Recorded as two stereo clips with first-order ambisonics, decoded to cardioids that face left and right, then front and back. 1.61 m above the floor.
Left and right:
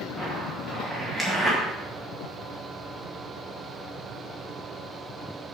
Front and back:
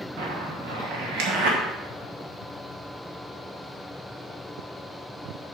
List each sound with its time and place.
0.2 s a zipper: 175° right, 2 m